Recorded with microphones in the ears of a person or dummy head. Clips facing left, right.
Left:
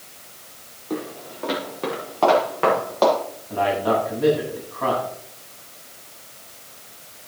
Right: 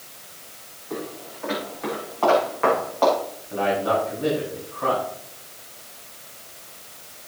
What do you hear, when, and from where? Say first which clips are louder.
0.9 s footsteps: left 3 dB; 60° left (ahead or behind), 8 m
3.5 s a man speaking: left 1 dB; 90° left, 7.5 m